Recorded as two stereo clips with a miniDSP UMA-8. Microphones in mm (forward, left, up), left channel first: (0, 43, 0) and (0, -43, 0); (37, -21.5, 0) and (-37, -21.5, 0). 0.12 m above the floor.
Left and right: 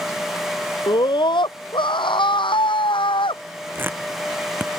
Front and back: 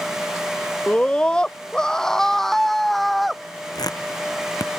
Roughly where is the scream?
Left.